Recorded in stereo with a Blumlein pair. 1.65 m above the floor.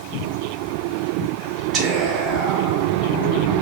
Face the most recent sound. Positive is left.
turn(degrees=-25)